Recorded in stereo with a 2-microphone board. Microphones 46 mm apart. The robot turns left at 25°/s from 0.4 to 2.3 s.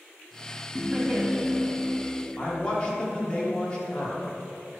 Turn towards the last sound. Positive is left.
turn(degrees=20)  # may be behind; listen again after turning